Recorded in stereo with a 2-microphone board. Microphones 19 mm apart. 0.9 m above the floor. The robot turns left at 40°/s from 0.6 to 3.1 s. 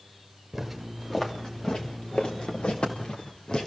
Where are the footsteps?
5° right (ahead or behind), 5 m; by 3.7 s 50° left (ahead or behind), 6.5 m.